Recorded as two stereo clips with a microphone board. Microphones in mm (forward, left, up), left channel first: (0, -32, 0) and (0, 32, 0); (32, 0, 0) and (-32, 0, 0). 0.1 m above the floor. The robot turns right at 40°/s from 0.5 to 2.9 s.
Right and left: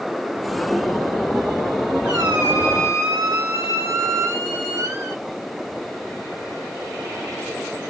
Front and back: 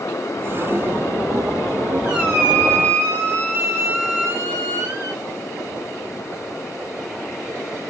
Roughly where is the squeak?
Left.